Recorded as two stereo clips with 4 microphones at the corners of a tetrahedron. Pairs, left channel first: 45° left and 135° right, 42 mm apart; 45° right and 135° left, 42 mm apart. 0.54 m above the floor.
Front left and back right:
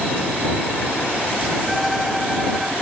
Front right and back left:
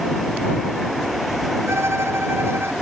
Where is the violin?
140° left.